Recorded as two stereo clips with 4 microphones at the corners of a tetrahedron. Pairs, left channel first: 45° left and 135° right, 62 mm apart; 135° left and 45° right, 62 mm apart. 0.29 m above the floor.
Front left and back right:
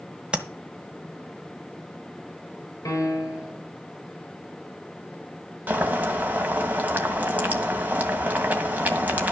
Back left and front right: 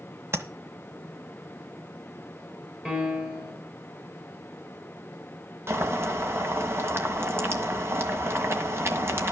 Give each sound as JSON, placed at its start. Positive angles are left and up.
{"t": 0.3, "sound": "tapping", "azimuth_deg": -65, "distance_m": 1.3}
{"t": 2.9, "sound": "a piano", "azimuth_deg": 30, "distance_m": 4.0}
{"t": 5.7, "sound": "boiling", "azimuth_deg": -80, "distance_m": 1.9}